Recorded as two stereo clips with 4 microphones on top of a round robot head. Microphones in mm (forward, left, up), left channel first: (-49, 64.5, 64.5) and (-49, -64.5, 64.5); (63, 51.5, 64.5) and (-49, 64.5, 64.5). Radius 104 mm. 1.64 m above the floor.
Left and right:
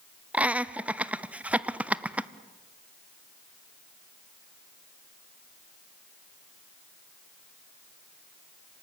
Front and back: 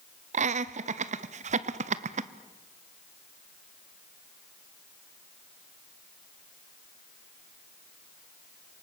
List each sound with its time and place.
0.3 s laughter: 170° right, 0.9 m